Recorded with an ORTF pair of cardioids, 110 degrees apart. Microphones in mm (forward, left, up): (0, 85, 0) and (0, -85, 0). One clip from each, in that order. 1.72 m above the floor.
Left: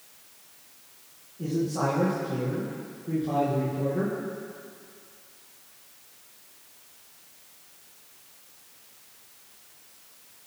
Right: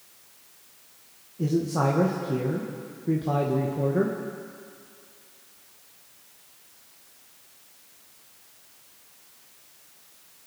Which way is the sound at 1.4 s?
45° right.